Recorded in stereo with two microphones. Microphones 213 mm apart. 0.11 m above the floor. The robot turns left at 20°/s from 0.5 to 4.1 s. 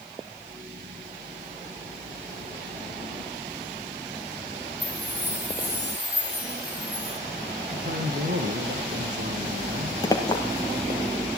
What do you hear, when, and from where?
4.8 s a chime: 10° right (ahead or behind), 4 m
7.7 s a man speaking: 60° right (ahead or behind), 3.5 m
10.0 s a clink: 15° left (ahead or behind), 1.8 m